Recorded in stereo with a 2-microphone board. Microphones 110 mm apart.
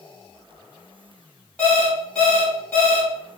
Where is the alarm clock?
10° left (ahead or behind), 1.7 m.